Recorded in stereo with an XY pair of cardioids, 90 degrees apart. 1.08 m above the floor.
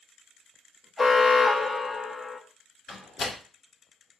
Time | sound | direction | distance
1.0 | an alarm | 5° left | 1.5 m
2.9 | a door slam | 45° left | 2.0 m